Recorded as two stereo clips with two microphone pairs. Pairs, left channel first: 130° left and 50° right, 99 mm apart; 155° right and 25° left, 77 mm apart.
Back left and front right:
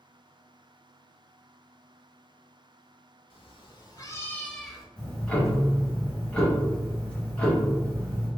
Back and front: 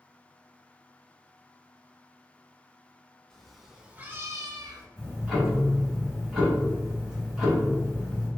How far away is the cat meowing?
About 0.7 m.